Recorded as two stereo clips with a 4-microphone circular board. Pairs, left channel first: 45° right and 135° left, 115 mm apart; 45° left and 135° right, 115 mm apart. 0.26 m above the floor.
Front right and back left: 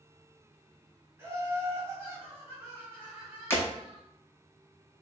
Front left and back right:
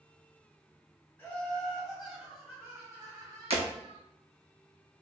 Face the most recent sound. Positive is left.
turn(degrees=-115)